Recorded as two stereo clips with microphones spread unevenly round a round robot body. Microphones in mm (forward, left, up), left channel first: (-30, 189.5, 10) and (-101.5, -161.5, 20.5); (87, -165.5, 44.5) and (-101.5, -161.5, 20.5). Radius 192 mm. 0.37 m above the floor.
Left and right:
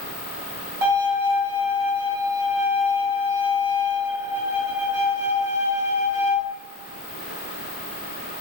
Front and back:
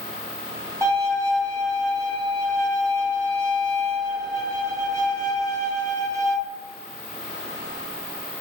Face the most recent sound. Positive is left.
turn(degrees=-135)